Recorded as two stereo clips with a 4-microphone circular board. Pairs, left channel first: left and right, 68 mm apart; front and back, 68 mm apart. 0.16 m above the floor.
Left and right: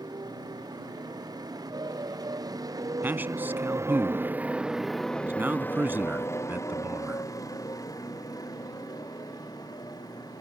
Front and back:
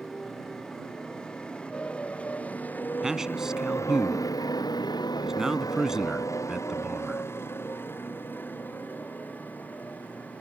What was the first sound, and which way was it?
A motorcycle, 80° right.